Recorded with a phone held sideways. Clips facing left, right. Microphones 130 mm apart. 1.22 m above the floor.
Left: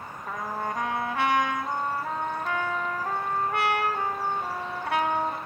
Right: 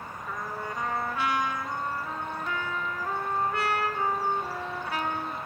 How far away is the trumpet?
About 3.5 m.